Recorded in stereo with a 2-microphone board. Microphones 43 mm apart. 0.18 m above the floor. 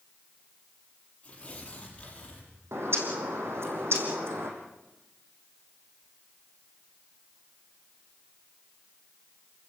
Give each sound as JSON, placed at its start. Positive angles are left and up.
{"t": 1.2, "sound": "tearing paper", "side_deg": 25, "distance_m": 7.0}
{"t": 2.7, "sound": "a bird", "side_deg": -85, "distance_m": 4.0}